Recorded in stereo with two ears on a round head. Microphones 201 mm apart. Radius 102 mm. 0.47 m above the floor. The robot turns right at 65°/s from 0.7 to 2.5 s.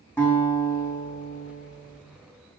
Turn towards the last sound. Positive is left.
turn(degrees=125)